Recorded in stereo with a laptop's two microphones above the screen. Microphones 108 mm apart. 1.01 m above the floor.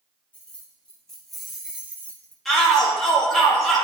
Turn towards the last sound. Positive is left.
turn(degrees=0)  # may be behind; listen again after turning